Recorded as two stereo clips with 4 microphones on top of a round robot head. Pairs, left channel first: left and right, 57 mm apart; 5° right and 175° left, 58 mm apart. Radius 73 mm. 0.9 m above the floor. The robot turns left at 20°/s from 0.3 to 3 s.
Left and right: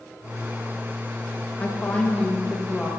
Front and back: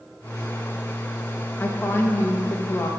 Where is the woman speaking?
35° left, 1.0 m; by 2.9 s 10° left, 1.0 m.